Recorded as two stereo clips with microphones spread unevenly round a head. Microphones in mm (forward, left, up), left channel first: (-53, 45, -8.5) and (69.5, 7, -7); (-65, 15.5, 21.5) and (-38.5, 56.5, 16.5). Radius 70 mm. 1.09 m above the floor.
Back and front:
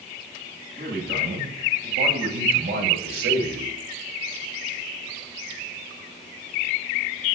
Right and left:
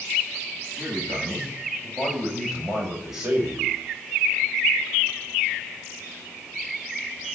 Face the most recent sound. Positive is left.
turn(degrees=-25)